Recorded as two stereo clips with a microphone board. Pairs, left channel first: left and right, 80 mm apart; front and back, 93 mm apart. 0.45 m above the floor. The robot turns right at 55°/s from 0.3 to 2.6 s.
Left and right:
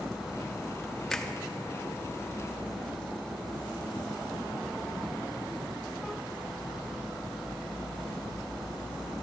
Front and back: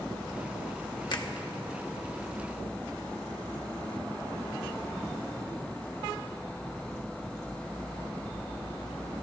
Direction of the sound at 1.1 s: 5° left.